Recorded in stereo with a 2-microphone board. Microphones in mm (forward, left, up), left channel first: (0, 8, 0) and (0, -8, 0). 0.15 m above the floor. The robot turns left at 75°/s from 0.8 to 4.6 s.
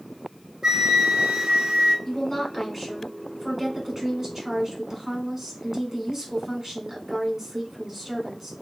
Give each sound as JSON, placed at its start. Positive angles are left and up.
{"t": 0.6, "sound": "a flute", "azimuth_deg": -40, "distance_m": 1.0}
{"t": 2.0, "sound": "a woman speaking", "side_deg": 25, "distance_m": 1.2}